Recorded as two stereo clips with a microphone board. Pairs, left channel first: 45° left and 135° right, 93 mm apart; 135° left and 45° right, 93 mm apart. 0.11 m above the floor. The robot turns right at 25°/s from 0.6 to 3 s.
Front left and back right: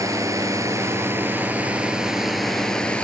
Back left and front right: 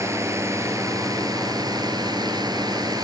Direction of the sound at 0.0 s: 90° right.